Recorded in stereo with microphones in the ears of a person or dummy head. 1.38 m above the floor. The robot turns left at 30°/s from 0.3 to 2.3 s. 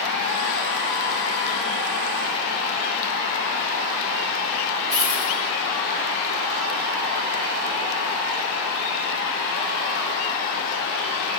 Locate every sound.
4.9 s a dropped coin: 40° right (ahead or behind), 2.0 m